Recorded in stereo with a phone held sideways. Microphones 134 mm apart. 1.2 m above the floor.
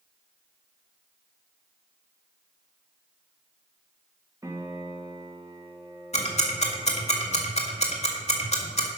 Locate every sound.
4.4 s a piano: 25° right (ahead or behind), 1.7 m
6.1 s ticking: 55° left (ahead or behind), 1.8 m